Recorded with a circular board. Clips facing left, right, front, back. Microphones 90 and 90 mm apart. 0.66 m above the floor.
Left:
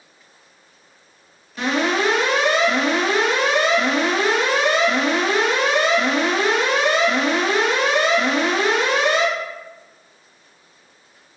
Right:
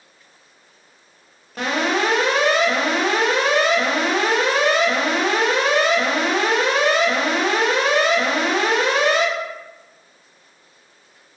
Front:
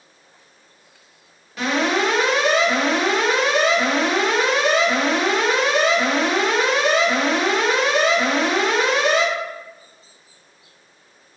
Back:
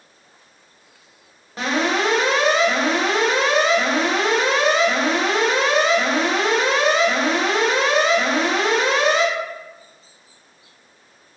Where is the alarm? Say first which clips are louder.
Left 1 dB, even; 125° right, 1.0 m.